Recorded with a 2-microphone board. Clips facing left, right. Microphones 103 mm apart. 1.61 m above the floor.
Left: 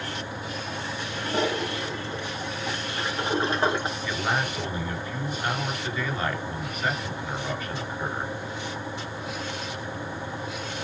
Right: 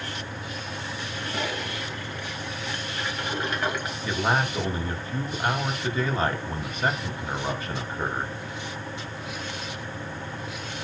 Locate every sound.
1.1 s a toilet flushing: 30° left (ahead or behind), 3 m
4.0 s a man speaking: 30° right (ahead or behind), 5 m